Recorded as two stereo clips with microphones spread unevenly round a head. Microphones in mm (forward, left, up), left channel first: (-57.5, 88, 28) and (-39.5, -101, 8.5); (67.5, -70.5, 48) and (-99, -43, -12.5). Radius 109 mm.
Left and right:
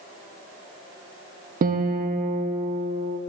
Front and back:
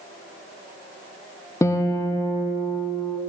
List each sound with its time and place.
1.6 s a guitar: 95° right, 0.6 m